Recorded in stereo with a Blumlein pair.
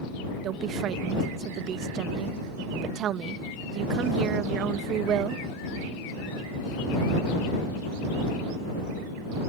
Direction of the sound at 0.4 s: 30° right.